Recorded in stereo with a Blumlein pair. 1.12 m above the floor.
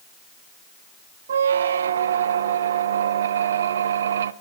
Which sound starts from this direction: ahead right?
A squeak, at 1.3 s.